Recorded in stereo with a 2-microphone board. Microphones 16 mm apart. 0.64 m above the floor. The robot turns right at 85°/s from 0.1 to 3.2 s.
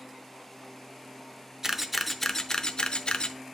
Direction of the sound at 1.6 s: 30° right (ahead or behind).